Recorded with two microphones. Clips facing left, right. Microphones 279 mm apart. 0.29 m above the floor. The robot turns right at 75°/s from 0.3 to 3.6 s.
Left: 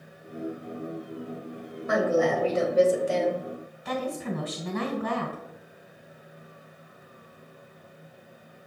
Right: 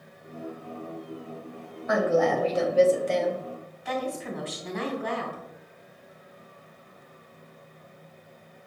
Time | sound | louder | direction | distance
1.9 | a woman speaking | even | 75° left | 1.0 m
3.9 | a woman speaking | left 1 dB | 45° left (ahead or behind) | 1.7 m